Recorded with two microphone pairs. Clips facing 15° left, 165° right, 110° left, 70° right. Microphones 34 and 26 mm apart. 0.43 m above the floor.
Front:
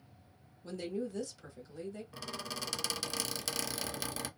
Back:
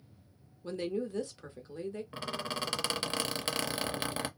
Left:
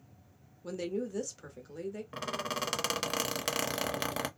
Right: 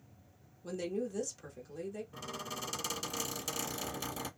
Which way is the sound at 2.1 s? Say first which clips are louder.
Back 6 dB, left 7 dB; 140° left.